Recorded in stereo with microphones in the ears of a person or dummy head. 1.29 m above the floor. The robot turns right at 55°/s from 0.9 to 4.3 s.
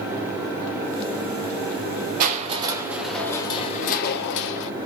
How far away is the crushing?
About 0.5 m.